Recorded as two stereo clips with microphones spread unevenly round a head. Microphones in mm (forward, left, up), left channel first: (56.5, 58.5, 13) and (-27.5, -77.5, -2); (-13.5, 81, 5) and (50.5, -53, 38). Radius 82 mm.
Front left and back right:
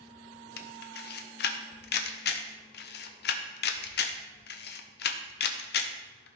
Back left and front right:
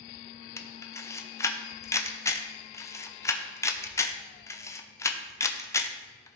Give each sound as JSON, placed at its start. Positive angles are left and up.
{"t": 0.6, "sound": "a camera shutter", "azimuth_deg": 55, "distance_m": 0.8}